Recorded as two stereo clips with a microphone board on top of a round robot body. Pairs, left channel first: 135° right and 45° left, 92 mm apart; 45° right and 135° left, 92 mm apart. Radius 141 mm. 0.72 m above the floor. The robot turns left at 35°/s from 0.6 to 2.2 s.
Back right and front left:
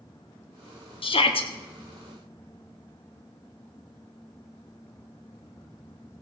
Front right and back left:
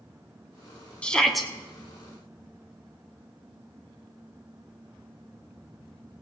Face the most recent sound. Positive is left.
turn(degrees=-165)